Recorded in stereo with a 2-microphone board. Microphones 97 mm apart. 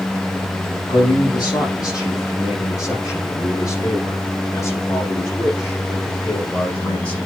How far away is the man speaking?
About 6 m.